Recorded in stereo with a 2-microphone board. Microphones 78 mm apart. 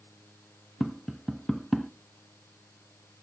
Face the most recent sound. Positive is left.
turn(degrees=0)  # may be behind; listen again after turning